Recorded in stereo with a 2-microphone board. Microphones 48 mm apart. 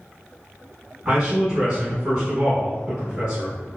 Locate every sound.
1.1 s a man speaking: 20° right (ahead or behind), 1.1 m